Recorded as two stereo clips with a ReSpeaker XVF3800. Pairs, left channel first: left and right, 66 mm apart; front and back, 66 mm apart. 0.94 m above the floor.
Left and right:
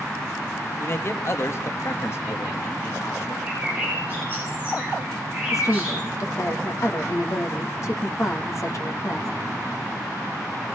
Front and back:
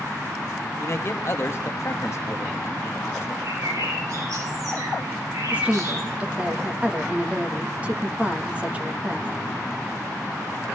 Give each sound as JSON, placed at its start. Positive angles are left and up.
{"t": 0.8, "sound": "a man speaking", "azimuth_deg": 45, "distance_m": 1.0}
{"t": 3.4, "sound": "a bird", "azimuth_deg": -160, "distance_m": 8.0}
{"t": 5.5, "sound": "a woman speaking", "azimuth_deg": 110, "distance_m": 1.2}